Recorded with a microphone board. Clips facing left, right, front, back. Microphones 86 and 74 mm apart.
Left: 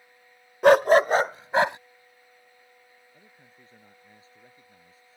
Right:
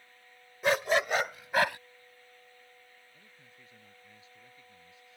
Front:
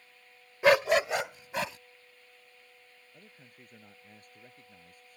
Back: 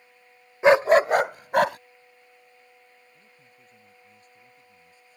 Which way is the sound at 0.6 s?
115° left.